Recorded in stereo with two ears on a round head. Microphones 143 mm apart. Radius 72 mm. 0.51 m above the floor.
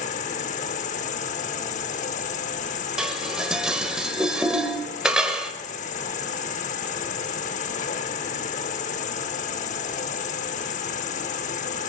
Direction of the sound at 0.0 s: 50° left (ahead or behind).